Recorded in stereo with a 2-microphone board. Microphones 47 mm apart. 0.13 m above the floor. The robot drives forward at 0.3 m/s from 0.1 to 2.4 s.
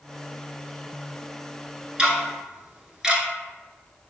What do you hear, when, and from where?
2.0 s ticking: 15° right (ahead or behind), 0.6 m